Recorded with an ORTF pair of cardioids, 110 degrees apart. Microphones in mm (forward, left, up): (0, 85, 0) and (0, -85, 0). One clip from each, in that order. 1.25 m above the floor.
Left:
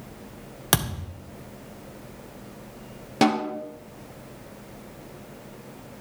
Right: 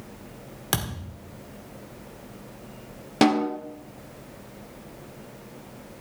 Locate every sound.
0.7 s a thud: 25° left, 1.8 m
3.2 s a snare drum: 15° right, 2 m